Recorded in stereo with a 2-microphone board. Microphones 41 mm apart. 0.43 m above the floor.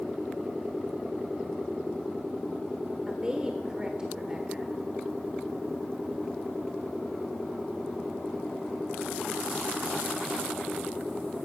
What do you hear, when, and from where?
3.1 s a woman speaking: 20° right (ahead or behind), 1.2 m